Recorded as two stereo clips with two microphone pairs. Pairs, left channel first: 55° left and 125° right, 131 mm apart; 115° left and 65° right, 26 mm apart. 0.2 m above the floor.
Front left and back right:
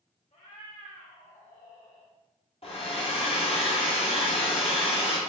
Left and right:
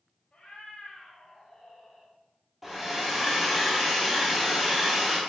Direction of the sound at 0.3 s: 70° left.